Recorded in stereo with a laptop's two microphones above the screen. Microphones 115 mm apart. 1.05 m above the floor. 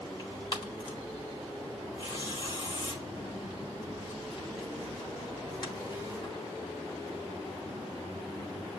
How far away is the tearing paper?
About 1.3 m.